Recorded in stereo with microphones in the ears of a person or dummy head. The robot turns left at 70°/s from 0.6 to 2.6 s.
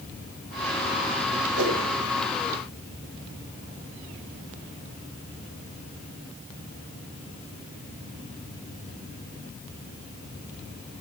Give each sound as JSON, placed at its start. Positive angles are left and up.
{"t": 1.6, "sound": "a whoosh", "side_deg": -65, "distance_m": 1.7}